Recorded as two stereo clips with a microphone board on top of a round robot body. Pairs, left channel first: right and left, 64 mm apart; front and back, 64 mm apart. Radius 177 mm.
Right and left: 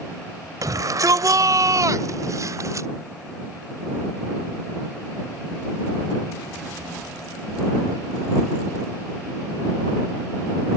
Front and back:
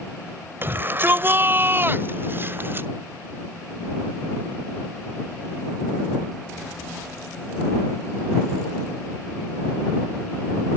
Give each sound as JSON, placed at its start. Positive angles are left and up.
{"t": 0.6, "sound": "a shout", "azimuth_deg": 125}